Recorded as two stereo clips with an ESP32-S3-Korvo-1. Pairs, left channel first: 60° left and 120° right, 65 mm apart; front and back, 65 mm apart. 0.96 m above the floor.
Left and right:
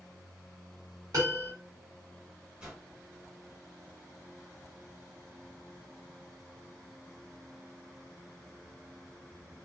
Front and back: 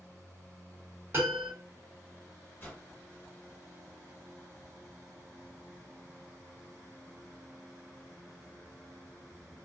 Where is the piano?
130° right, 1.6 m.